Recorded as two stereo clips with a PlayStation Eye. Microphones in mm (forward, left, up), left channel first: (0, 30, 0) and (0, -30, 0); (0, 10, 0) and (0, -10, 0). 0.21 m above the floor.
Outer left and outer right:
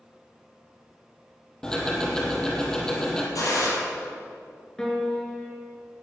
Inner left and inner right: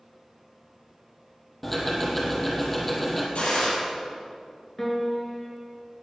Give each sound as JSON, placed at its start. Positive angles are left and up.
{"t": 1.6, "sound": "ticking", "side_deg": 10, "distance_m": 2.5}
{"t": 3.4, "sound": "a gunshot", "side_deg": 75, "distance_m": 5.0}
{"t": 4.8, "sound": "a piano", "side_deg": 10, "distance_m": 2.5}